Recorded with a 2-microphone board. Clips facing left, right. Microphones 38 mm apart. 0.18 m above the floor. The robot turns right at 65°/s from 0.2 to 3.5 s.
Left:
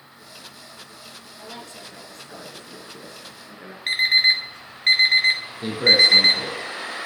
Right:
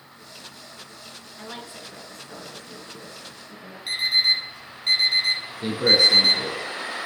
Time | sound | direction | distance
1.4 | a woman speaking | 50° right | 2.5 m
3.9 | an alarm clock | 55° left (ahead or behind) | 1.5 m
5.6 | a man speaking | 10° left (ahead or behind) | 2 m